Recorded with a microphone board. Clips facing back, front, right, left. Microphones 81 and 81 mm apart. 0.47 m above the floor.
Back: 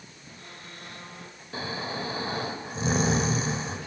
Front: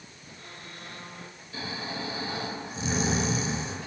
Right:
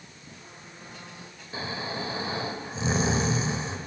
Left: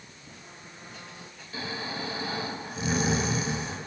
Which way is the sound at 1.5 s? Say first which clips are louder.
Back 3 dB, right 2 dB; 145° right.